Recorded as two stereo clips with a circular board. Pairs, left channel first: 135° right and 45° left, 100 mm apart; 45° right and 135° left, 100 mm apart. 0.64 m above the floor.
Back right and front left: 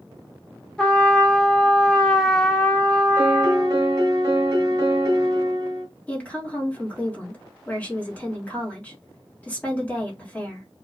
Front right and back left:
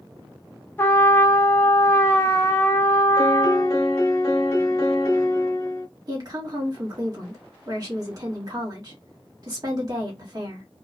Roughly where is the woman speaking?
Behind left.